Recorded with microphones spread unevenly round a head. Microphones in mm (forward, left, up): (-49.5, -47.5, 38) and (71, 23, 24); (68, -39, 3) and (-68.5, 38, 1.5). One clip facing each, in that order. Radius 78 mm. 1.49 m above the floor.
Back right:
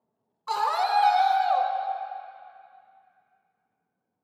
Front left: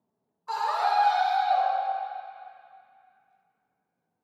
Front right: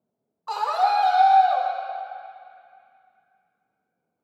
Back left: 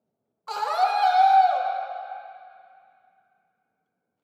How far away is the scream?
About 1.1 m.